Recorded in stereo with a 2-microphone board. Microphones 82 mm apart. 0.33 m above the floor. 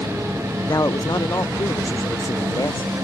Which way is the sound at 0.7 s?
45° left (ahead or behind).